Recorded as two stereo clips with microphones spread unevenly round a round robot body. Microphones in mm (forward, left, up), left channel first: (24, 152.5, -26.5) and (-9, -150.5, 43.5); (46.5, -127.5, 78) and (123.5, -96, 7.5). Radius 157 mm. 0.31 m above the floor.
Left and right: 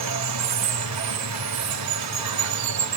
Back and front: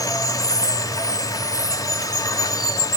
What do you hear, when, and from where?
0.0 s running water: 70° right, 1.6 m